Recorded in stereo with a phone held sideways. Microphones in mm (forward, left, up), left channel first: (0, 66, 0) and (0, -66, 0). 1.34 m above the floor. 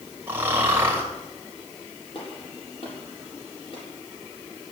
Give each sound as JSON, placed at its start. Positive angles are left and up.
{"t": 0.3, "sound": "snoring", "side_deg": -15, "distance_m": 3.5}
{"t": 2.1, "sound": "a gunshot", "side_deg": 45, "distance_m": 7.5}